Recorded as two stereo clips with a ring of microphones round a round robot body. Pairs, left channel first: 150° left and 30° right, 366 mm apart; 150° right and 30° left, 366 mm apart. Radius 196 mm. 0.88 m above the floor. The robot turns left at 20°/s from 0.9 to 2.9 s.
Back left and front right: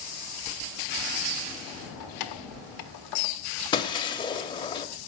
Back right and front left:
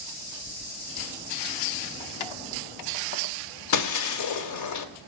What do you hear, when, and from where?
2.0 s keys jangling: 165° right, 1.3 m; by 3.4 s 175° left, 1.3 m
3.7 s breaking glass: 135° right, 0.7 m